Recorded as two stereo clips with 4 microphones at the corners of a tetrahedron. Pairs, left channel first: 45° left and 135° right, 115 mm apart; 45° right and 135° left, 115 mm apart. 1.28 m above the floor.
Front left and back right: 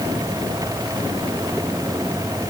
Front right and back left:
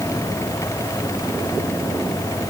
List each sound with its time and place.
Only background noise.